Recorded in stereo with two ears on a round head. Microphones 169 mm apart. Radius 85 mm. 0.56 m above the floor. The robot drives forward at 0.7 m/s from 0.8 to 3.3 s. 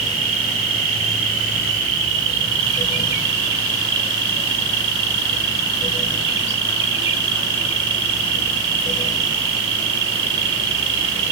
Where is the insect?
85° right, 5 m; by 11.3 s 65° right (ahead or behind), 5.5 m.